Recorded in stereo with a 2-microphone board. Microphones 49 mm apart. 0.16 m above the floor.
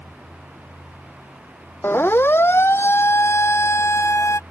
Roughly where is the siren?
Left.